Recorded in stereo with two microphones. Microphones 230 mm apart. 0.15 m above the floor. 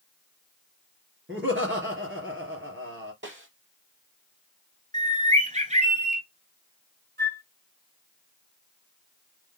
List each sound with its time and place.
1.3 s laughter: 60° right (ahead or behind), 2.5 m
3.2 s a snare drum: 55° right (ahead or behind), 2.5 m
4.9 s a bird: 30° right (ahead or behind), 0.8 m
7.2 s a flute: 50° right (ahead or behind), 0.6 m